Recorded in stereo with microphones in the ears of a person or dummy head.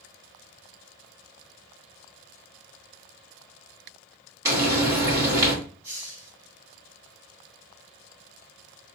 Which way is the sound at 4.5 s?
20° right (ahead or behind).